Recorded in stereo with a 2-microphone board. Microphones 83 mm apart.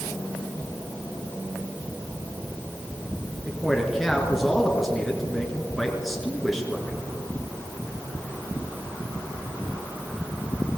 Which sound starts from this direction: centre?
A man speaking, at 3.5 s.